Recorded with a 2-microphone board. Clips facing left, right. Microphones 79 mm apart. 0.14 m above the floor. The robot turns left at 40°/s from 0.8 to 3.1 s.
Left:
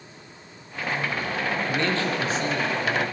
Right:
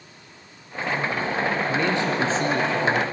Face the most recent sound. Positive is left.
turn(degrees=-65)